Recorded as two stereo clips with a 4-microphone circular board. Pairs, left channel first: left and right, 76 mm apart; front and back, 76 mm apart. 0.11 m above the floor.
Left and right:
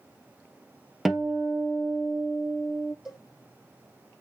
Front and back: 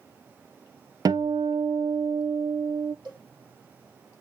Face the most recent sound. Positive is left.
turn(degrees=-175)